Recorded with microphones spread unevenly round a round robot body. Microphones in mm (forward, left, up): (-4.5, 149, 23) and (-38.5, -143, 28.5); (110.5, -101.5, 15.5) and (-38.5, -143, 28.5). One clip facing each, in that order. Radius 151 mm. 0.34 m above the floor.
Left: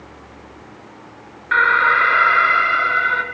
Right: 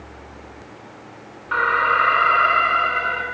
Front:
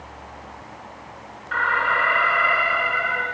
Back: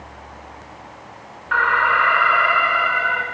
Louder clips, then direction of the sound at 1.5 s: Even, back 4 dB; 140° left.